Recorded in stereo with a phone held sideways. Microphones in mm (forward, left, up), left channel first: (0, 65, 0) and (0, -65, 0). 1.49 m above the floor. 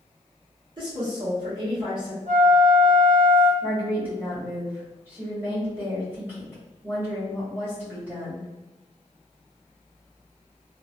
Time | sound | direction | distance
0.8 | a woman speaking | 40° right (ahead or behind) | 1.6 m
2.3 | a flute | 55° right (ahead or behind) | 1.7 m
3.6 | a woman speaking | 15° right (ahead or behind) | 1.9 m